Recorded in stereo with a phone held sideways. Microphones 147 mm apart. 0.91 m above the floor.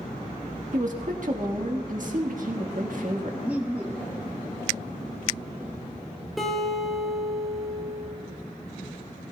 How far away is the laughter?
About 1.7 m.